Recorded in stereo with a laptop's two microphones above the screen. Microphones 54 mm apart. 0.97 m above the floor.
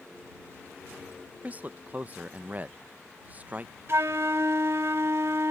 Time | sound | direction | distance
1.4 | a man speaking | 30° right (ahead or behind) | ?
3.9 | a flute | 55° right (ahead or behind) | ?